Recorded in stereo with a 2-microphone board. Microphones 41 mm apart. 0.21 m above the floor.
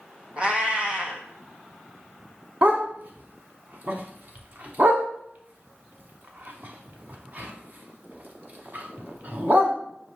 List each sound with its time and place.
0.4 s a cat meowing: 30° right (ahead or behind), 0.8 m
2.6 s a dog barking: 50° right (ahead or behind), 0.8 m